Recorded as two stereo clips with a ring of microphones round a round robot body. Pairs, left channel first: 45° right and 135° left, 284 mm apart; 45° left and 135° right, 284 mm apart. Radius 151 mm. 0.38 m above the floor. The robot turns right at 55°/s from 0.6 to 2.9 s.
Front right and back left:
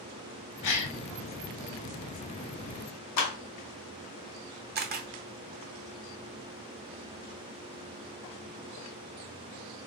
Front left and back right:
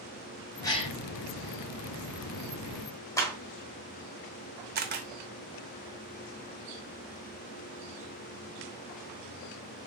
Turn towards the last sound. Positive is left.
turn(degrees=180)